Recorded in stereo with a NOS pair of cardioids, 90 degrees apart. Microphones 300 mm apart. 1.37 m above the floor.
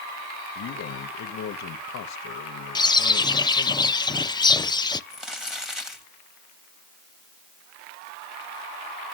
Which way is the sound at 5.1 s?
Straight ahead.